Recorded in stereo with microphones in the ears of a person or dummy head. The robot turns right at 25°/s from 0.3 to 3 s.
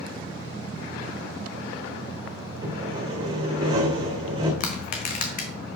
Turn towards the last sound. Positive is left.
turn(degrees=55)  # may be behind; listen again after turning